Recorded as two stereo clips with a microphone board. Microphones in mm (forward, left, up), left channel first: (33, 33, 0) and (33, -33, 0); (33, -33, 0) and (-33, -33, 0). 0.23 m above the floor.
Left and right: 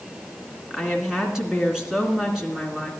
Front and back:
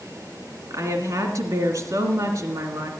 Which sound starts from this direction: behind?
A woman speaking, at 0.7 s.